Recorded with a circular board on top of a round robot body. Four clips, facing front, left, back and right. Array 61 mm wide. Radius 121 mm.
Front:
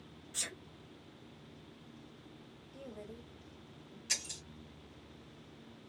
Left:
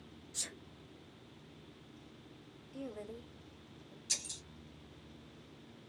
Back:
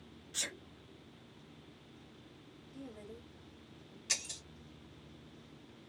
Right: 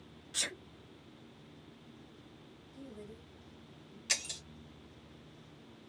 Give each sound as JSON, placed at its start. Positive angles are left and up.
{"t": 0.3, "sound": "a sneeze", "azimuth_deg": -105, "distance_m": 1.3}
{"t": 2.7, "sound": "a woman speaking", "azimuth_deg": 90, "distance_m": 2.0}
{"t": 4.1, "sound": "breaking glass", "azimuth_deg": -100, "distance_m": 1.1}